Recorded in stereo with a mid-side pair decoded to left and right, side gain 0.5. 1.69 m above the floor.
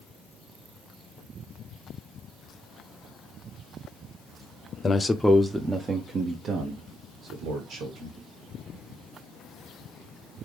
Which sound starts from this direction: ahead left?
A man speaking, at 4.8 s.